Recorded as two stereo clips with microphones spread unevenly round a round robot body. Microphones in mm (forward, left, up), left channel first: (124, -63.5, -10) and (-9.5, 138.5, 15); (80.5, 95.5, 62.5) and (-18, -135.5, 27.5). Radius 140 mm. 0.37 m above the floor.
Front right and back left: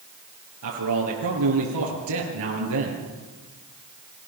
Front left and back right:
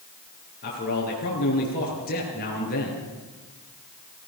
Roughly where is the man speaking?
Behind left.